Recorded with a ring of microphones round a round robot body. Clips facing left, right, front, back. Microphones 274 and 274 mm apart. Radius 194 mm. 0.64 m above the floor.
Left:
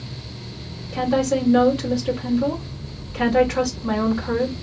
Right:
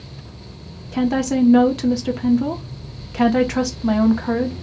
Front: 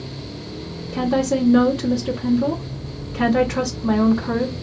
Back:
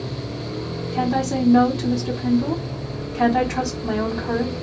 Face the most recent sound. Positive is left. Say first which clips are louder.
# right 2 dB, front 3 dB
turn(degrees=-75)